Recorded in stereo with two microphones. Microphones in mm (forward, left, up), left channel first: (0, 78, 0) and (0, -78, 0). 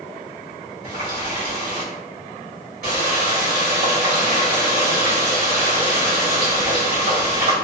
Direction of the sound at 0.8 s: 70° right (ahead or behind).